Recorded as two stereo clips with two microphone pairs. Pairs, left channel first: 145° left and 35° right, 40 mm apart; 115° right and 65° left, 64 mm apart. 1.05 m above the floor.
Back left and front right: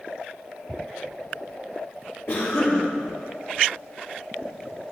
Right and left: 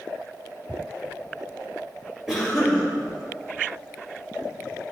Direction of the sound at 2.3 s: 150° left.